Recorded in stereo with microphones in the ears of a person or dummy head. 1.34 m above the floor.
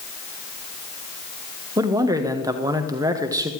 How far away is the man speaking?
About 1.3 m.